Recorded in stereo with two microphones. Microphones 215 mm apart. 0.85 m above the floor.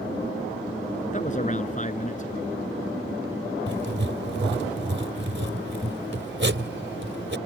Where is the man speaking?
35° left (ahead or behind).